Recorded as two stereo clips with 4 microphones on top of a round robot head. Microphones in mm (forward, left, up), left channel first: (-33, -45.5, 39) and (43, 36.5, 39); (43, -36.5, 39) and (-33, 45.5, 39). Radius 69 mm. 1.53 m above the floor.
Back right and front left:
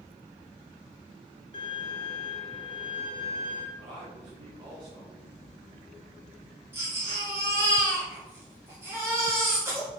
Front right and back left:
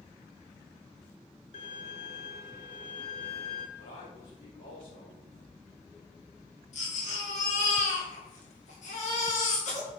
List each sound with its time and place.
1.5 s a violin: 85° right, 1.1 m
3.8 s a man speaking: straight ahead, 3 m
6.7 s a baby crying: 20° right, 2.5 m